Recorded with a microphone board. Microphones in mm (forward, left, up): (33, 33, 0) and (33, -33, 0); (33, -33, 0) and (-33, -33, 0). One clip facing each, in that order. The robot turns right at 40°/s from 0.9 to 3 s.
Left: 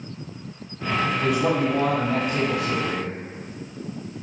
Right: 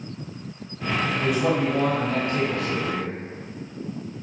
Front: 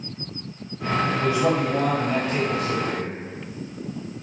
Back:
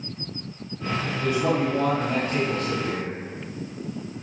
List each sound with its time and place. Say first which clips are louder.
1.2 s a man speaking: right 1 dB, back 2 dB; 5° right, 1.0 m; by 3.1 s 65° left, 1.0 m